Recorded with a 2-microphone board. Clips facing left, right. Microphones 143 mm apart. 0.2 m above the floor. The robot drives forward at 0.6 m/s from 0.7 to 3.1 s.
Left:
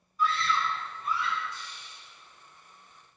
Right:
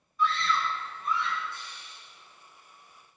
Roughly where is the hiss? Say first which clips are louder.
Even; right.